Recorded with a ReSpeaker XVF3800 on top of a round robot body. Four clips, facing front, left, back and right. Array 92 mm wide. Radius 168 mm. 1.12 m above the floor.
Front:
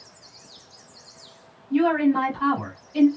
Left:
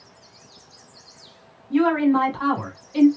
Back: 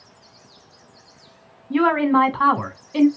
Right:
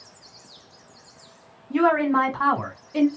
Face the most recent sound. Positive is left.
turn(degrees=-160)